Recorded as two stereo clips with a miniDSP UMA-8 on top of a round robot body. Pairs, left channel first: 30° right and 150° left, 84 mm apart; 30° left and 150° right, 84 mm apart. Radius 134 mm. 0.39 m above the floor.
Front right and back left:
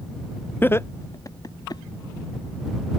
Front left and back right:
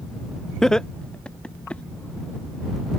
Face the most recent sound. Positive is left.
turn(degrees=-45)